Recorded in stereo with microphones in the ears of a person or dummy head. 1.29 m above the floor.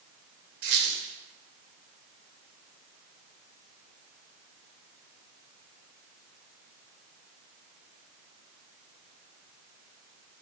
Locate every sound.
0.6 s a squeak: 45° right (ahead or behind), 0.7 m